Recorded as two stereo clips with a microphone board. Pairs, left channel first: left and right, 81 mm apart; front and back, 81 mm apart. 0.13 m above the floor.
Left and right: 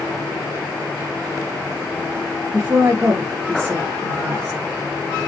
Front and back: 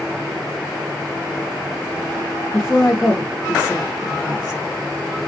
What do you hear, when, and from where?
2.5 s a woman speaking: 55° right, 1.6 m